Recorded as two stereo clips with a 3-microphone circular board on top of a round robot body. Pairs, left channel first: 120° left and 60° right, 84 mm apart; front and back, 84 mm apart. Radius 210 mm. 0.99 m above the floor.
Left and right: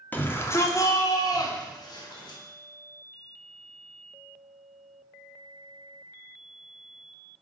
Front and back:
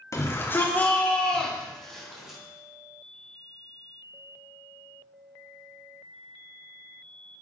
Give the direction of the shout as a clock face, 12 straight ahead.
10 o'clock.